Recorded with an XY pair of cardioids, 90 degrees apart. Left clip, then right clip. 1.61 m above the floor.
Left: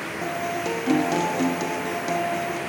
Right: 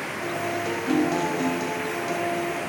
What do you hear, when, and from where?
0.2 s a guitar: 40° left, 0.9 m